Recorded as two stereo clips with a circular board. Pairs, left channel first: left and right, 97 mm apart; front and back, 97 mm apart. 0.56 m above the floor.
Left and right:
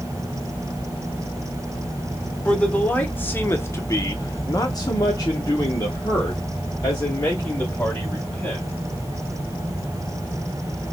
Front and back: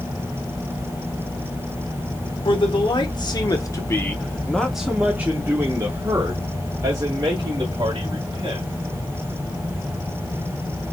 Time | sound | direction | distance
2.5 | a man speaking | 10° left | 1.3 m